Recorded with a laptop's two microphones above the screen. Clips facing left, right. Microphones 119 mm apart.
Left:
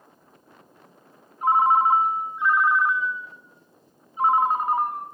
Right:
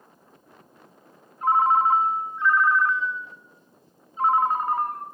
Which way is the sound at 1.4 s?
15° left (ahead or behind).